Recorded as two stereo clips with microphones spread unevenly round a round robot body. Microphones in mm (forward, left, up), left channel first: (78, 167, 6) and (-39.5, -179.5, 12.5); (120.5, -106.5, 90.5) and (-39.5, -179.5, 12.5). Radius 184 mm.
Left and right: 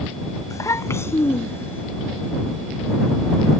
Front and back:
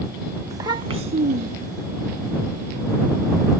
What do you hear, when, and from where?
0.5 s a child speaking: 150° left; by 1.8 s 155° left